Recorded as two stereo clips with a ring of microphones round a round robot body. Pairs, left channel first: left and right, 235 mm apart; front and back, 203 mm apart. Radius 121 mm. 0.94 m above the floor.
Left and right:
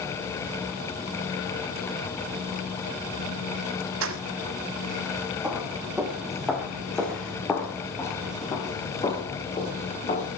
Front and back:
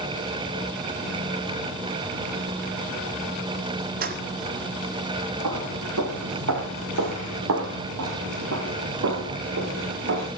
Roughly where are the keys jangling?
Behind right.